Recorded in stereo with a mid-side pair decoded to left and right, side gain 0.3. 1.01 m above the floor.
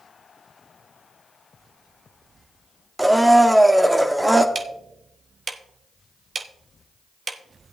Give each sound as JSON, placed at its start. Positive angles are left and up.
{"t": 3.0, "sound": "a blender", "azimuth_deg": -15, "distance_m": 1.2}
{"t": 4.5, "sound": "ticking", "azimuth_deg": -55, "distance_m": 0.9}